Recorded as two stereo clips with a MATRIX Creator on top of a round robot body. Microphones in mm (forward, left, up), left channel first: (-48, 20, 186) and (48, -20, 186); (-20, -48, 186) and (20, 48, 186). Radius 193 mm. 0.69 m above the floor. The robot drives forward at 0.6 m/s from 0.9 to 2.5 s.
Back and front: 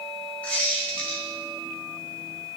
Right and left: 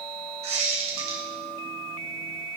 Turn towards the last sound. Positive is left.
turn(degrees=110)